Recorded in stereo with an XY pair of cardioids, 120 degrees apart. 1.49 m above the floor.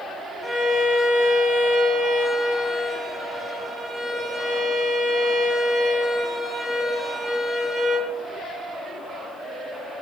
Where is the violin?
20° right, 1.3 m.